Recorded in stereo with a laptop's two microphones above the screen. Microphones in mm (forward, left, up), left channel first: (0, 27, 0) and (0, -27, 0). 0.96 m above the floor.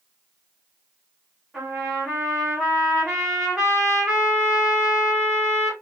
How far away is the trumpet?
About 2.0 m.